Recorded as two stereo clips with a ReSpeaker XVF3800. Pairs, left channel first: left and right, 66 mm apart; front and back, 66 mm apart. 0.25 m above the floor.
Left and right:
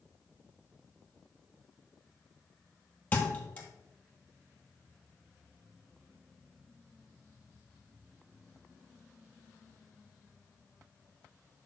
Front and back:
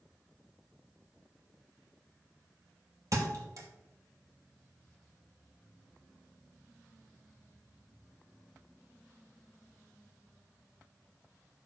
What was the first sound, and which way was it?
A thud, 155° left.